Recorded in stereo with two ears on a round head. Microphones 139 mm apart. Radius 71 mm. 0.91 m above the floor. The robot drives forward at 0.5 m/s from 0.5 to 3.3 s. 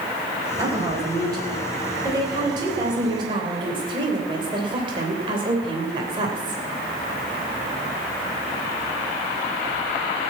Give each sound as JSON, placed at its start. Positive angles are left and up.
{"t": 0.6, "sound": "a woman speaking", "side_deg": -20, "distance_m": 4.5}